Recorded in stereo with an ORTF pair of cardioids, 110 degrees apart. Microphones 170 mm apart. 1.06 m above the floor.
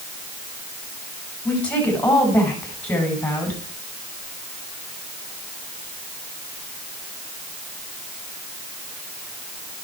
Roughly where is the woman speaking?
Ahead.